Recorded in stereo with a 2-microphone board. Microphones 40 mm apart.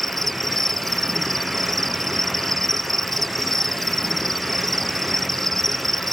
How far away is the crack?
I don't hear a crack.